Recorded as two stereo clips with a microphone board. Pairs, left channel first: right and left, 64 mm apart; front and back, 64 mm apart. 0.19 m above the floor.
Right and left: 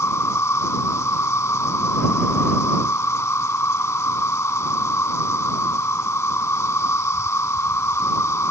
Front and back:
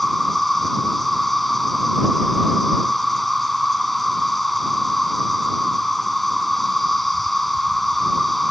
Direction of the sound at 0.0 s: 85° right.